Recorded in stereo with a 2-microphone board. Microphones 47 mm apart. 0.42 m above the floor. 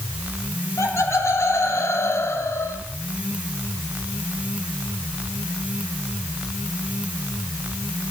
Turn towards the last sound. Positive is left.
turn(degrees=60)  # may be behind; listen again after turning